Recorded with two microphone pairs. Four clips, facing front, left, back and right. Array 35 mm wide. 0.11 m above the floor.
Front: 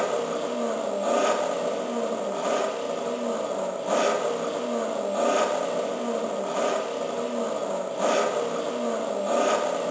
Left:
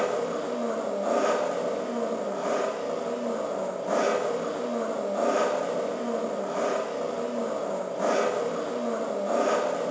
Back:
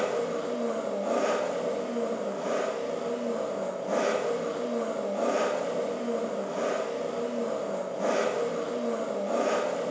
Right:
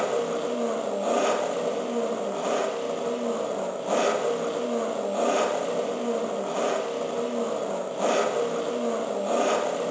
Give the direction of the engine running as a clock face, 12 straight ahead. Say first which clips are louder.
Right 1 dB, front 2 dB; 1 o'clock.